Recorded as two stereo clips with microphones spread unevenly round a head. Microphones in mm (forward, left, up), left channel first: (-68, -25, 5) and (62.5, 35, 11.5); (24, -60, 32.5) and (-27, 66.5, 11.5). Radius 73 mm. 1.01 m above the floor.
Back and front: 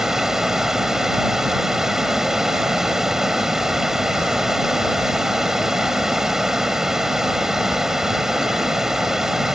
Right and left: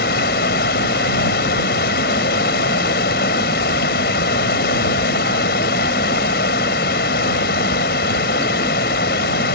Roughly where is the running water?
Ahead right.